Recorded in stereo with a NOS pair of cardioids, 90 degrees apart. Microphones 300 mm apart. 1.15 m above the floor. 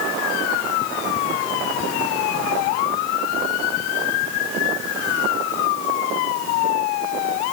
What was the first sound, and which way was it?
Only background noise.